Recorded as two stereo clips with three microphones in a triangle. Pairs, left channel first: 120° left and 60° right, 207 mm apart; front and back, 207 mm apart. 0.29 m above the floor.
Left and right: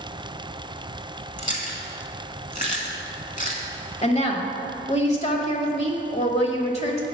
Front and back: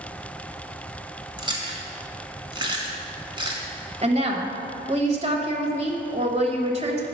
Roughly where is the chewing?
Behind left.